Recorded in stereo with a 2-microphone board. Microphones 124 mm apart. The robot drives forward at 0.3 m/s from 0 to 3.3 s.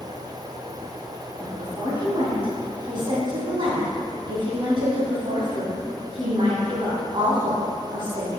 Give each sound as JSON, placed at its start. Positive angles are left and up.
{"t": 1.4, "sound": "a woman speaking", "side_deg": -40, "distance_m": 2.5}